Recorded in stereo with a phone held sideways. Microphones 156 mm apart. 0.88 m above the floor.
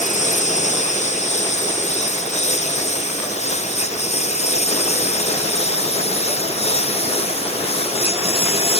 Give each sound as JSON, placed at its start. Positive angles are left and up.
{"t": 0.0, "sound": "a lawn mower", "side_deg": 50}